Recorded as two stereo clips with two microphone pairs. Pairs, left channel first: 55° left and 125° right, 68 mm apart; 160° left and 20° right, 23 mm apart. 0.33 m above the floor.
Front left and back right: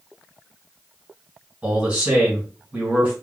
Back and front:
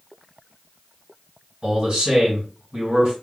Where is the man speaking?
55° right, 3 m.